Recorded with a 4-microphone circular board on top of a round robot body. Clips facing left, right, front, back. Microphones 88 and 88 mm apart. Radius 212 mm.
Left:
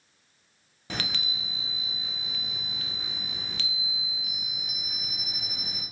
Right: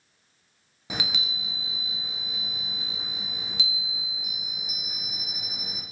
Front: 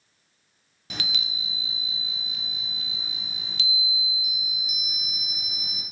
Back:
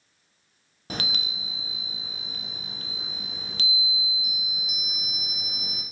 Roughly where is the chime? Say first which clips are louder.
Right 1 dB, back 2 dB; behind.